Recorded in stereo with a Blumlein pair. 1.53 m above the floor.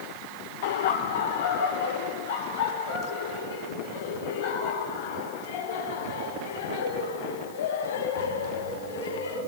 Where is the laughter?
55° left, 1.3 m; by 9.4 s 65° left, 10 m.